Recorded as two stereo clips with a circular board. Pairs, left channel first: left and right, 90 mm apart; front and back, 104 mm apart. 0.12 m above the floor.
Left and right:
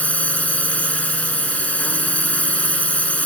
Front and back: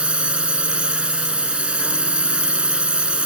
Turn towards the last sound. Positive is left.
turn(degrees=125)